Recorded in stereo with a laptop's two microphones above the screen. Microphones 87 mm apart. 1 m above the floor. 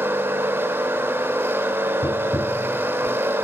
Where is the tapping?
45° left (ahead or behind), 0.6 m.